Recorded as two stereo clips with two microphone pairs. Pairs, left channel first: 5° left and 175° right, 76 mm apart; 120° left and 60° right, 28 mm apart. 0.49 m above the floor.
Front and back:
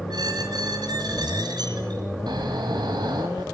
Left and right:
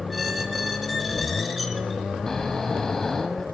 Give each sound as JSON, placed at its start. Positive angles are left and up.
{"t": 0.1, "sound": "a squeak", "azimuth_deg": -150, "distance_m": 3.5}
{"t": 2.3, "sound": "snoring", "azimuth_deg": -165, "distance_m": 4.0}